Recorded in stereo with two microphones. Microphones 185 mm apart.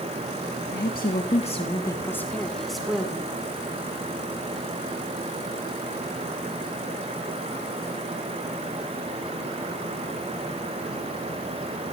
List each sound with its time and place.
0.7 s a woman speaking: 60° left (ahead or behind), 1.5 m; by 3.3 s 5° right (ahead or behind), 3 m